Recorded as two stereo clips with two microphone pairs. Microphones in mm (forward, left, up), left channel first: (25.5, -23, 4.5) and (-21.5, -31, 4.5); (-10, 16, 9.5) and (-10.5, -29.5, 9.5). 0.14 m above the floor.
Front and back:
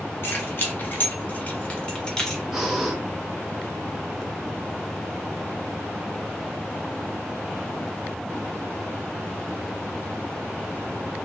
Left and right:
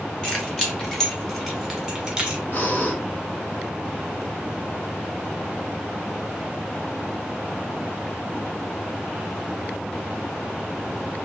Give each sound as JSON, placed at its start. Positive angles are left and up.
{"t": 0.2, "sound": "keys jangling", "azimuth_deg": 20, "distance_m": 1.4}
{"t": 2.5, "sound": "breathing", "azimuth_deg": 110, "distance_m": 0.9}